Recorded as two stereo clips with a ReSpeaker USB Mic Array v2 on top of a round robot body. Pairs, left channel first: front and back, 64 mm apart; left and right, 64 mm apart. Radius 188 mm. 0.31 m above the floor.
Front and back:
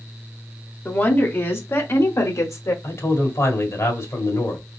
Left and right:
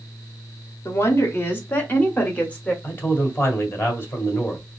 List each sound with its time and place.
0.8 s a woman speaking: 55° left, 1.8 m; by 2.7 s 25° left, 2.5 m
2.8 s a man speaking: 40° left, 2.5 m